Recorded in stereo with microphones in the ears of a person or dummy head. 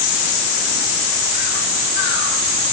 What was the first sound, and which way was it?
Only background noise.